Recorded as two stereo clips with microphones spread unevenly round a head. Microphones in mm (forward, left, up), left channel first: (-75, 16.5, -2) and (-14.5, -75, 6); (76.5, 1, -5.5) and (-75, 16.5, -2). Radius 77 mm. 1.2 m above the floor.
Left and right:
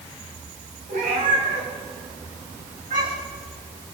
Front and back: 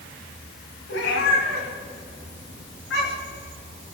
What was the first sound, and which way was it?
A cat meowing, 20° right.